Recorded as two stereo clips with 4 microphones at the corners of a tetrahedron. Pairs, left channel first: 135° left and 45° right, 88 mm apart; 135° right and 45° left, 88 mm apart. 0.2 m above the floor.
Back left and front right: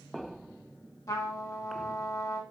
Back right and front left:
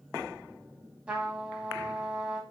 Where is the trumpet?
115° left, 0.8 m.